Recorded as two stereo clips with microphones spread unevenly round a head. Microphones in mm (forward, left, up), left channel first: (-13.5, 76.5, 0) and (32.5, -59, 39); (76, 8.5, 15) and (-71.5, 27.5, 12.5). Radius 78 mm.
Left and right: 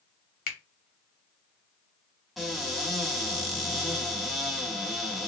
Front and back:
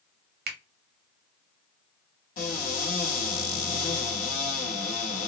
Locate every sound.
0.5 s a finger snap: 145° left, 0.8 m
2.4 s a cupboard door: 5° left, 1.3 m